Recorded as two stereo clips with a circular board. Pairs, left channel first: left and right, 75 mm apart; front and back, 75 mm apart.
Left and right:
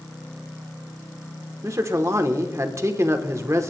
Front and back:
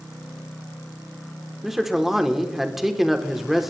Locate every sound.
1.6 s a man speaking: 95° right, 1.1 m